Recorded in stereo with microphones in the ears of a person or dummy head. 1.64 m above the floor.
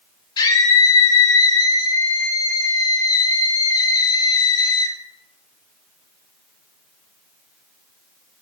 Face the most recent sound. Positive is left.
turn(degrees=25)  # may be behind; listen again after turning